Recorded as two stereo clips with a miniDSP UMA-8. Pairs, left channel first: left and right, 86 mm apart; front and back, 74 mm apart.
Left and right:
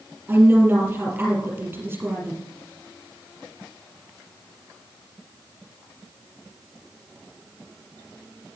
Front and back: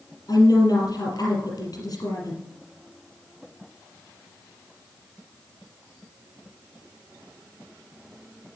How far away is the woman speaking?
About 4 m.